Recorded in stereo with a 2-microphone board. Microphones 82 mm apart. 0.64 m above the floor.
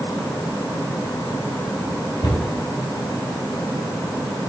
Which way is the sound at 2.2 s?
70° left (ahead or behind).